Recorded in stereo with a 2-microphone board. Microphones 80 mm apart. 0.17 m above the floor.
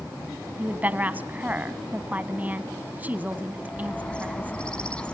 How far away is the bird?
About 1.1 m.